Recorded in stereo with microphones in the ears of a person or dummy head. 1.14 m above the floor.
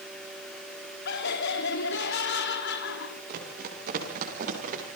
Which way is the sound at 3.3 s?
50° right (ahead or behind).